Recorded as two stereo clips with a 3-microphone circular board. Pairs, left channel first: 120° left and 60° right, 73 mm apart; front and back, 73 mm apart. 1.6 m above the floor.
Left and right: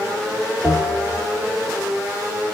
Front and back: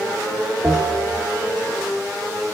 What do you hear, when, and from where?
0.6 s a bell: 85° right, 1.6 m